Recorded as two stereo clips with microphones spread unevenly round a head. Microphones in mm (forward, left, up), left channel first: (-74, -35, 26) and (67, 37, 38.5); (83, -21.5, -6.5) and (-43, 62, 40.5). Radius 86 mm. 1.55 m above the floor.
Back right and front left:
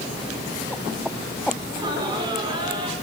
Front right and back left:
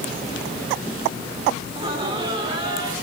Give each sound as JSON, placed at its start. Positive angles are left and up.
{"t": 1.7, "sound": "laughter", "azimuth_deg": 90, "distance_m": 4.5}